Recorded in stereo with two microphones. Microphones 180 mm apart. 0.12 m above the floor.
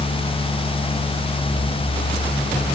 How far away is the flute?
I don't hear a flute.